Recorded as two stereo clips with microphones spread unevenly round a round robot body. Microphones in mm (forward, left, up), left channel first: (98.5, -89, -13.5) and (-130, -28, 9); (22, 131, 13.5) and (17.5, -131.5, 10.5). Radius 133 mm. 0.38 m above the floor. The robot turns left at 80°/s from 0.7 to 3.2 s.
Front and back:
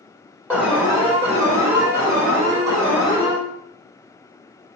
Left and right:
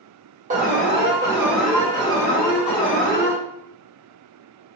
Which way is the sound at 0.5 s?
105° right.